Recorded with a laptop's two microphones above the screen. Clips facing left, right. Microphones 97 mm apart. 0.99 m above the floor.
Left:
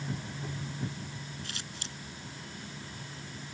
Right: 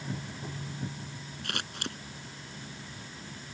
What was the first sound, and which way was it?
Scissors, 60° right (ahead or behind).